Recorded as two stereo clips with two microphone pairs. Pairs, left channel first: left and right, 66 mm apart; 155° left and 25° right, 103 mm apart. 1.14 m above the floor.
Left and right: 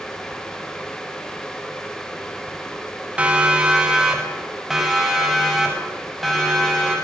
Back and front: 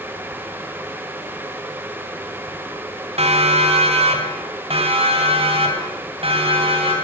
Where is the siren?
20° right, 3.5 m; by 6.9 s straight ahead, 8 m.